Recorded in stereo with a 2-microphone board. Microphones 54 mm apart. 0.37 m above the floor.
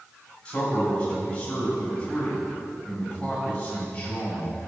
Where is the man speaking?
20° left (ahead or behind), 2.5 m.